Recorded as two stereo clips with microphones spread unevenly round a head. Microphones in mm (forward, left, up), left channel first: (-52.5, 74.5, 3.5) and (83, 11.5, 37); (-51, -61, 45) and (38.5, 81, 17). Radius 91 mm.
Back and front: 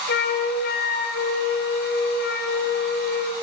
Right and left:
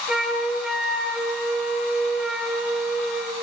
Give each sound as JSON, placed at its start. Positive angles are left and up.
{"t": 0.1, "sound": "a flute", "azimuth_deg": 150, "distance_m": 2.5}